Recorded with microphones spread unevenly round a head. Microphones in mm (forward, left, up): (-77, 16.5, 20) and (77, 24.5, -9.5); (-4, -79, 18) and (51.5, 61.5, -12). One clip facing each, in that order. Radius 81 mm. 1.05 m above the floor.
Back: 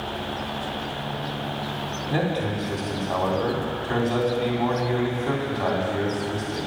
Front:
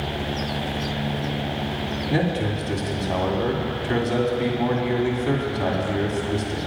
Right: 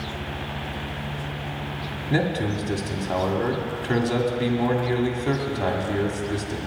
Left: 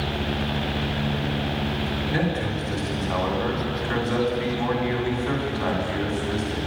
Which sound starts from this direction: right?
A man speaking, at 2.1 s.